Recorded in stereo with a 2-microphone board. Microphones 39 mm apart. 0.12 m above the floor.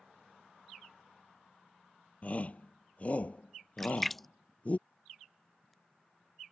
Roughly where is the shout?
Left.